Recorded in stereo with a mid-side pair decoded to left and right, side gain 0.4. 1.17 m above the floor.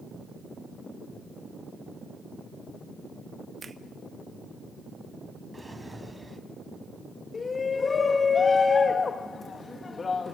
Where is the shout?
40° left, 1.6 m.